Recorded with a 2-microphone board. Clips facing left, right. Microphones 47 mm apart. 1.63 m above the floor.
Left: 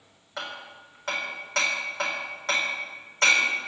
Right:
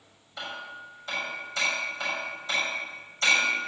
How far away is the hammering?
About 4 m.